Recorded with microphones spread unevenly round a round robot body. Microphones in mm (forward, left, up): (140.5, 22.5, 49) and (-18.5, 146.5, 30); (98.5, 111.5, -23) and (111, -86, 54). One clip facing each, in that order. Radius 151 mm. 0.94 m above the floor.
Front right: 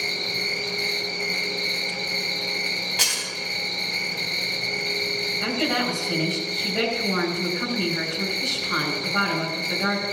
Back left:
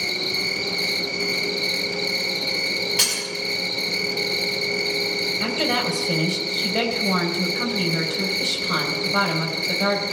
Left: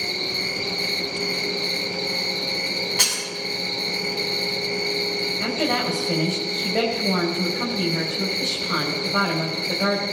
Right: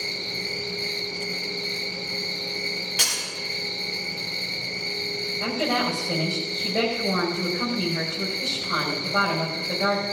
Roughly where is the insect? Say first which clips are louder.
Back left 3 dB, left 5 dB; behind left.